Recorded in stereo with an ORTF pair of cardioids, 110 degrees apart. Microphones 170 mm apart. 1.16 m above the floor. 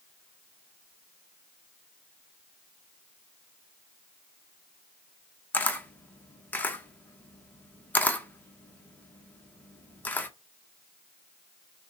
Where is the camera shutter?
10° left, 0.7 m.